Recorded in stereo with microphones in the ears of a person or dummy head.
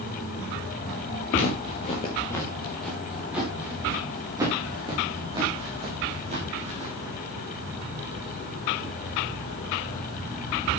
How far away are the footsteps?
About 1.7 m.